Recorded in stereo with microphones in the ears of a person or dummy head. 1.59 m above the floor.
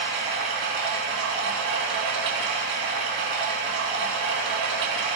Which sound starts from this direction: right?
Running water, at 0.0 s.